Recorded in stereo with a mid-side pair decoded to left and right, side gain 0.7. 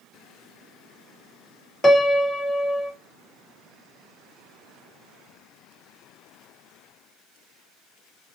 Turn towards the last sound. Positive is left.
turn(degrees=15)